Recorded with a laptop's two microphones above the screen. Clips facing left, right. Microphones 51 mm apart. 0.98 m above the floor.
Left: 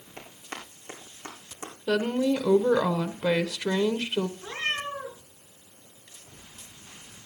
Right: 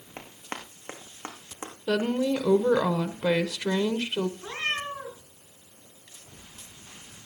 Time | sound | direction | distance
0.2 | running footsteps | 40° right (ahead or behind) | 4 m
1.9 | a woman speaking | 5° left (ahead or behind) | 0.7 m
4.4 | a cat meowing | 25° right (ahead or behind) | 6.5 m